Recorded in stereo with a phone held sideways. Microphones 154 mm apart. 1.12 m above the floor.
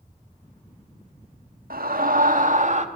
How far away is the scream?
About 2.0 m.